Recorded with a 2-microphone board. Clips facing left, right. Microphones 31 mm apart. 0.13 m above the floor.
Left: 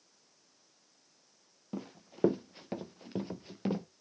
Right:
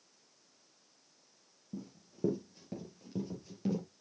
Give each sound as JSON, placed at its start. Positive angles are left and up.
{"t": 1.7, "sound": "running footsteps", "side_deg": 75, "distance_m": 1.1}